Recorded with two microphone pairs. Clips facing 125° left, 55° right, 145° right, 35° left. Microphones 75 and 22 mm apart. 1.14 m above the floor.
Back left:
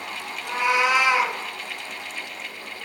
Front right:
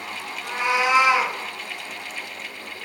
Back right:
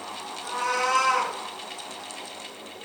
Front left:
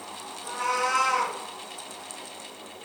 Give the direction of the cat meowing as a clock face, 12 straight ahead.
3 o'clock.